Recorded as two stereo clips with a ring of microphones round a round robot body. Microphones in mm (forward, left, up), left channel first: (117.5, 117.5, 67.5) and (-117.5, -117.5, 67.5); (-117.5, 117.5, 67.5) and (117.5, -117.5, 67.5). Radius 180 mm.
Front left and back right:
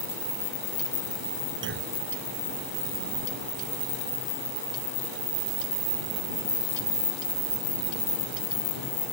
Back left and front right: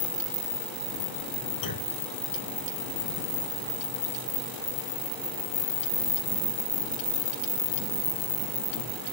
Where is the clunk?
170° left.